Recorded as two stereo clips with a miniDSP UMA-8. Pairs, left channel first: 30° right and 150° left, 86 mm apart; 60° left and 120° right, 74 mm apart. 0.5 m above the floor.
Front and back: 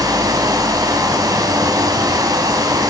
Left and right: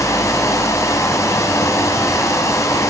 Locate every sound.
0.0 s running water: 105° left, 0.9 m